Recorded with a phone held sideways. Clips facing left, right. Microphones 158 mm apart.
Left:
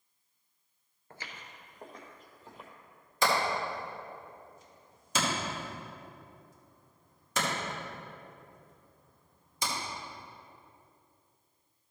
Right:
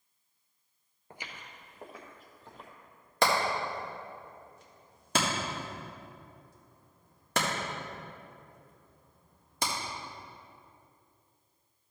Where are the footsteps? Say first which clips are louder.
Right 1 dB; 20° right (ahead or behind), 1.1 m; by 2.7 s 5° left (ahead or behind), 1.8 m.